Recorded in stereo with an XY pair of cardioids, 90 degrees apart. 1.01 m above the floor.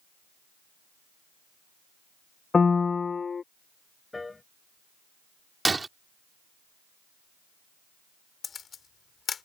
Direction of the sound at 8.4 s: 50° left.